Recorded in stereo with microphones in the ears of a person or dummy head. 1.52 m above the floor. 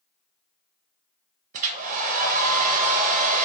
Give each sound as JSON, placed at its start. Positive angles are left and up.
{"t": 1.5, "sound": "a hair dryer", "side_deg": -45, "distance_m": 0.6}